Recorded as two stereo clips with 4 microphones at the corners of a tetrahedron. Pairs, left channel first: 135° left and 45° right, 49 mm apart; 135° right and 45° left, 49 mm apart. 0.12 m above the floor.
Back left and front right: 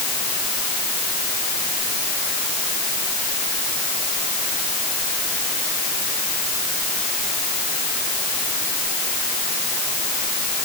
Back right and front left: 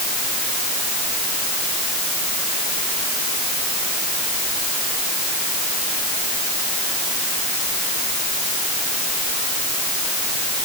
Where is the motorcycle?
I don't hear a motorcycle.